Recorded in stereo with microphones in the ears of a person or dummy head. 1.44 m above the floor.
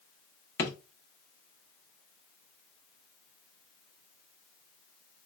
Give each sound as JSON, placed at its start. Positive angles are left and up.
{"t": 0.6, "sound": "a drawer", "side_deg": 15, "distance_m": 0.7}